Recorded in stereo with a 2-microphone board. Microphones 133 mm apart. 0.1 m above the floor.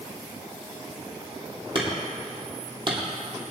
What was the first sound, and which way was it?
Hammering, 40° right (ahead or behind).